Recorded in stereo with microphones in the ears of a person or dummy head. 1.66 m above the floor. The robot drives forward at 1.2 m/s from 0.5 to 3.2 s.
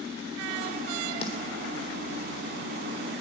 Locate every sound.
1.2 s a snare drum: 30° left (ahead or behind), 3.5 m